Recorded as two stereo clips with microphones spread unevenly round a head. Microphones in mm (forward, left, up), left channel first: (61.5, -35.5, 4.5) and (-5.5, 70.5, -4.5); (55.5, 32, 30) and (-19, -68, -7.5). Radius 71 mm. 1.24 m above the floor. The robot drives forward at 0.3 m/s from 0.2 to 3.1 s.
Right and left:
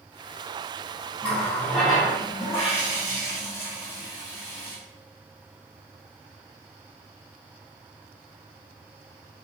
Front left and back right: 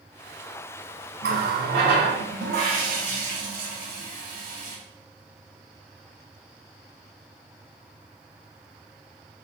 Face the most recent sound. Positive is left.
turn(degrees=-160)